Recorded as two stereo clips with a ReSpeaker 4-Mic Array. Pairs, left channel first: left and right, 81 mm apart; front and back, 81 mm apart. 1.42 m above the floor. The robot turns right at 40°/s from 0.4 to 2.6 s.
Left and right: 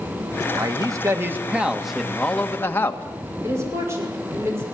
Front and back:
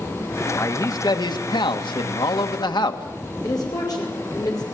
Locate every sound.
0.5 s a man speaking: 55° right, 1.9 m; by 3.0 s 25° left, 1.9 m
3.4 s a woman speaking: 35° right, 5.5 m